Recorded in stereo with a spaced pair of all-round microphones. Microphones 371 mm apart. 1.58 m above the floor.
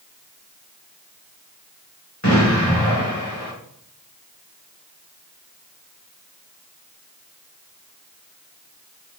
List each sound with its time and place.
2.2 s an explosion: 45° left (ahead or behind), 3 m